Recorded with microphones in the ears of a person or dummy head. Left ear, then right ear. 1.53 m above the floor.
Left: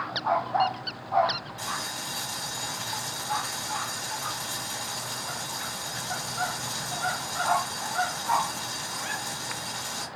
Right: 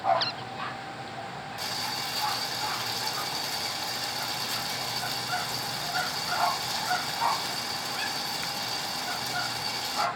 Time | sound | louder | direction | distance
1.6 | boiling | right 1 dB | 20° right (ahead or behind) | 1.4 m